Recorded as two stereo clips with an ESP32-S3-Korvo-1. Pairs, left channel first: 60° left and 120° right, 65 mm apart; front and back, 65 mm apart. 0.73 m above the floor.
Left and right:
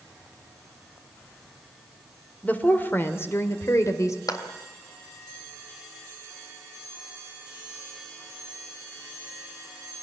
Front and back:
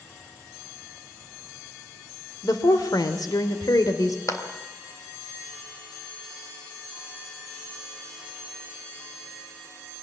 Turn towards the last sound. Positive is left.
turn(degrees=40)